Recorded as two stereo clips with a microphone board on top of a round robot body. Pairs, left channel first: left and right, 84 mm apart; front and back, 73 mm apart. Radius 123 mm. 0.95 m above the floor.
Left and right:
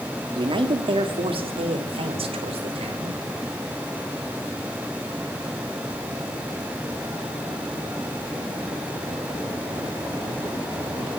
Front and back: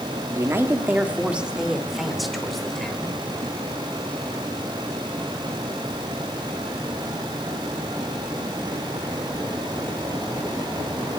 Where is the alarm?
No alarm in this recording.